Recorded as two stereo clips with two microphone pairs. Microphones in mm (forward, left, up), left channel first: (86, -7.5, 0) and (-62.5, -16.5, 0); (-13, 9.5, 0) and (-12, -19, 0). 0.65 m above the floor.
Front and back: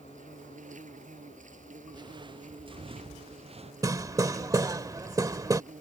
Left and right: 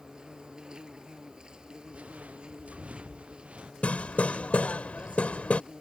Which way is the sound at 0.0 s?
150° right.